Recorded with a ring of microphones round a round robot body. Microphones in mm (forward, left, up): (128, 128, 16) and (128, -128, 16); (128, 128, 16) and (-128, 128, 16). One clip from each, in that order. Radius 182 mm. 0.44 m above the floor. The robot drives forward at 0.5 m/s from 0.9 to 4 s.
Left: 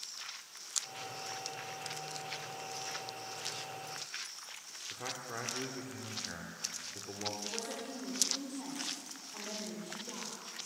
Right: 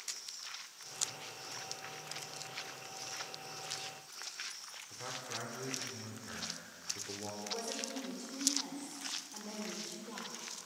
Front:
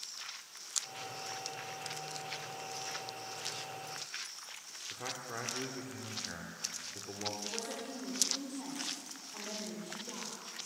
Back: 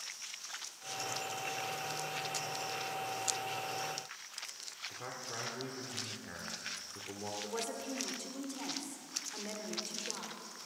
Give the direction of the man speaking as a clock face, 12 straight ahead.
10 o'clock.